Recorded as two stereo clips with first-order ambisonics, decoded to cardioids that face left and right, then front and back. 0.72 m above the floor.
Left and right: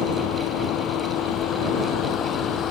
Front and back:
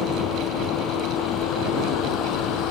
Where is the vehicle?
50° left; by 2.7 s 35° left.